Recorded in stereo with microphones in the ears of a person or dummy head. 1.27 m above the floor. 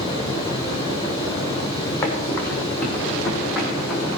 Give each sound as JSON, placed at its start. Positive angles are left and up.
{"t": 0.0, "sound": "running water", "side_deg": 25, "distance_m": 5.0}
{"t": 2.0, "sound": "running footsteps", "side_deg": 15, "distance_m": 5.0}